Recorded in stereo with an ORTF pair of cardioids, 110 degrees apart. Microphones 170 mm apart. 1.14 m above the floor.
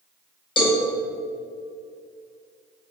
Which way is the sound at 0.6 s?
30° left.